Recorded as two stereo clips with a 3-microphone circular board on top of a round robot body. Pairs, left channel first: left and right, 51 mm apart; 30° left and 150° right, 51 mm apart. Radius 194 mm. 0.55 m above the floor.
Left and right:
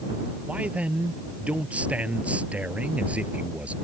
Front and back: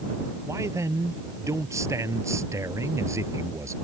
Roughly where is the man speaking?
Behind right.